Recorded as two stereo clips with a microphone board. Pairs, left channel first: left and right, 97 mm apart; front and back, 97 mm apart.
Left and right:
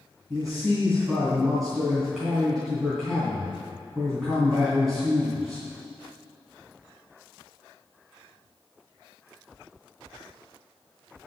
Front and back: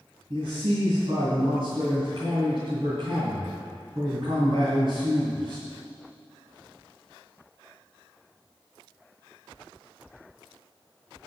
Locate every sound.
0.3 s a man speaking: straight behind, 2.5 m